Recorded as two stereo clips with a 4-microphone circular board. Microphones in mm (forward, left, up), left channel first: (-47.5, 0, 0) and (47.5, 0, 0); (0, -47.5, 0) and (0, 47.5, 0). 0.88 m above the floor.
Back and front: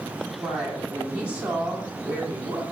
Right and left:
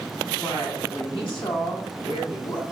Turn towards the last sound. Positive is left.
turn(degrees=-75)